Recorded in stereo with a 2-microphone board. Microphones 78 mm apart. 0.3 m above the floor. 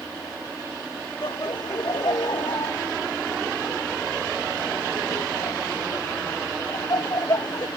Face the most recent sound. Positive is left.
turn(degrees=60)  # may be behind; listen again after turning